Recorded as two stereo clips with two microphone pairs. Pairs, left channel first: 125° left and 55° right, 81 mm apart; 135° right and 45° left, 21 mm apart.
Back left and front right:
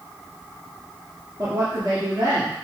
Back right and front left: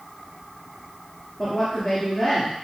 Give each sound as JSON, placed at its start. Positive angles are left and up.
{"t": 1.4, "sound": "a woman speaking", "azimuth_deg": -95, "distance_m": 3.0}